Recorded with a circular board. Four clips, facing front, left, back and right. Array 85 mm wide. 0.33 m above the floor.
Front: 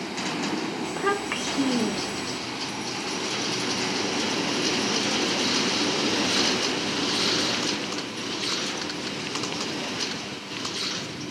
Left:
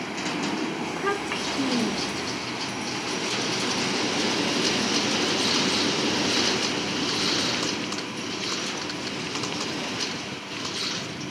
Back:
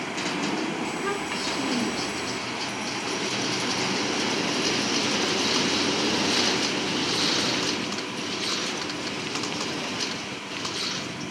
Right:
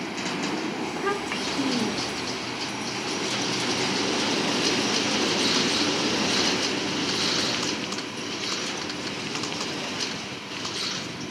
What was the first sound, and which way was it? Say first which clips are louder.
A child speaking: even, front 2 dB; 10° left.